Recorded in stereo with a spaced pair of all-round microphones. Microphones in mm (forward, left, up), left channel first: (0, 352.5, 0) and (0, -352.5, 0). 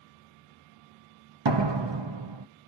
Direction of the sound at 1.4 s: 40° right (ahead or behind).